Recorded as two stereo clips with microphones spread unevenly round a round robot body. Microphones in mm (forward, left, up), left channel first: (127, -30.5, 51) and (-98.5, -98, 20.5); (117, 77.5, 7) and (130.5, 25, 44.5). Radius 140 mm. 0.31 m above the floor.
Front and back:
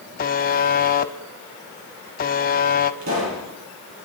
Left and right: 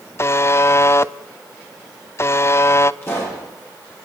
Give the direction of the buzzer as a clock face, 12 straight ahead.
9 o'clock.